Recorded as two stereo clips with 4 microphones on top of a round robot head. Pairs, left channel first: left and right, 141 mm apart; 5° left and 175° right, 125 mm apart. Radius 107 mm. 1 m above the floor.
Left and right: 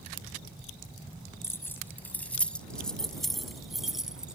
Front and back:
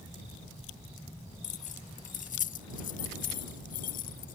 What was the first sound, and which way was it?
Keys jangling, 15° left.